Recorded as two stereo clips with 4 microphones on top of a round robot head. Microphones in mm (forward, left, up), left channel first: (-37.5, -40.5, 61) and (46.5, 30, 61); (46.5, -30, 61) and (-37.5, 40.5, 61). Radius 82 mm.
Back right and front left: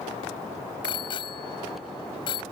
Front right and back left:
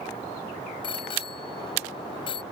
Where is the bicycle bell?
90° right.